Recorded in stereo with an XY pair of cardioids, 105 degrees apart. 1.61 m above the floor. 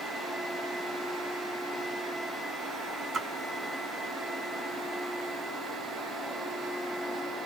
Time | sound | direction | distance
3.1 | a splash | 35° right | 2.5 m